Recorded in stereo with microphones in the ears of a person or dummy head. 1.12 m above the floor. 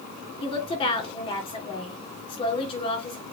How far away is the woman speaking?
About 3 m.